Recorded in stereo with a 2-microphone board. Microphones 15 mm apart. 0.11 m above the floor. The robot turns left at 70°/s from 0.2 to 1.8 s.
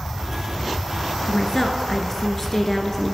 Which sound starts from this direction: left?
A woman speaking, at 1.3 s.